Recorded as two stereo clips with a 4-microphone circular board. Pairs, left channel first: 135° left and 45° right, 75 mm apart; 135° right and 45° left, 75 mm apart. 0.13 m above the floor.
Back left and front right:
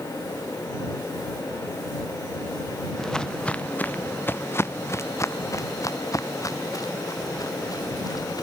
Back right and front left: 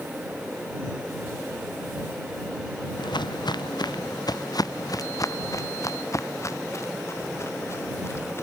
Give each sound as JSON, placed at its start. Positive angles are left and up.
{"t": 3.0, "sound": "footsteps", "azimuth_deg": -140}